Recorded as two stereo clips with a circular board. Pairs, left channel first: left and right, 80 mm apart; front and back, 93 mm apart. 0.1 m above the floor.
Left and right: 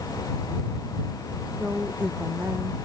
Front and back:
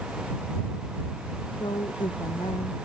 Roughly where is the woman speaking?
Ahead.